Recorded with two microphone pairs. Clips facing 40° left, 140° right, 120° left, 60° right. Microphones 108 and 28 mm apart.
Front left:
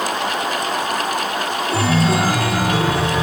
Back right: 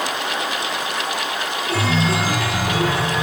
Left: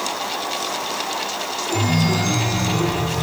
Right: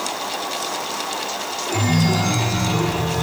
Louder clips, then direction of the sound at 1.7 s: Front left 3 dB, right 1 dB; straight ahead.